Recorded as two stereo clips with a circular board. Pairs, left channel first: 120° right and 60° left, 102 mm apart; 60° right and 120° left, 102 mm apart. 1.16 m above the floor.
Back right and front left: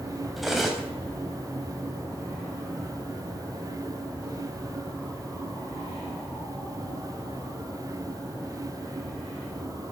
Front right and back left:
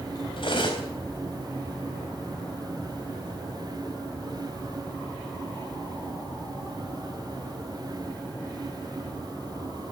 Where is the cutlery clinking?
30° right, 3.5 m.